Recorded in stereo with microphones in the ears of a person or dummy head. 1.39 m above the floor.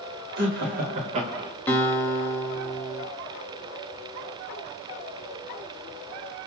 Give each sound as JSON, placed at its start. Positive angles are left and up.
{"t": 0.4, "sound": "laughter", "side_deg": -60, "distance_m": 1.0}
{"t": 1.7, "sound": "a guitar", "side_deg": 10, "distance_m": 0.8}